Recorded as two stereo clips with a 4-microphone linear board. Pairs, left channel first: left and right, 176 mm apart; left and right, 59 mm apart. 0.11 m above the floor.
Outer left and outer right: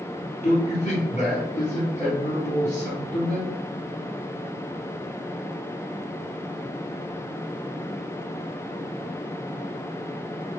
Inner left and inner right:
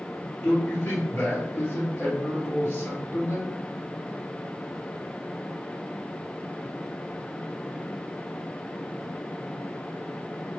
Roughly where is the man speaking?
Left.